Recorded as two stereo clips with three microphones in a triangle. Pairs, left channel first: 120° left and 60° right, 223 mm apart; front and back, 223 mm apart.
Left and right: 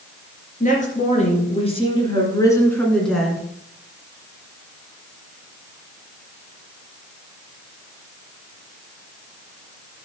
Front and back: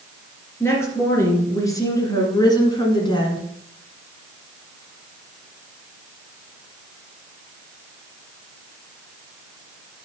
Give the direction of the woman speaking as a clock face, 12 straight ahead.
9 o'clock.